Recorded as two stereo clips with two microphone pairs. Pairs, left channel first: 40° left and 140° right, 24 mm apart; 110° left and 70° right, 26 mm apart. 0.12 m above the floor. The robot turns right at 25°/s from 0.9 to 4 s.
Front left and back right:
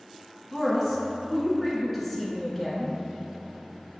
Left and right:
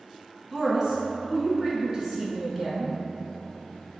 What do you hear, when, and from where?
0.5 s a woman speaking: 75° right, 1.2 m; by 2.9 s 25° right, 1.2 m